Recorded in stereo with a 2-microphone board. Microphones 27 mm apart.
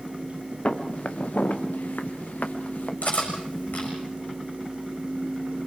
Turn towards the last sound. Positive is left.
turn(degrees=85)